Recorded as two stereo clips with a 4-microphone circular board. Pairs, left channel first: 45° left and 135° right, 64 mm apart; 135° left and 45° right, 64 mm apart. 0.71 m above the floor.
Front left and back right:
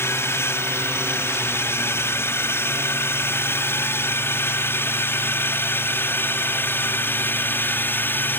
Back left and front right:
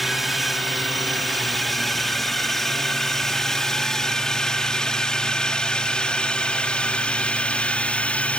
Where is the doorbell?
I don't hear a doorbell.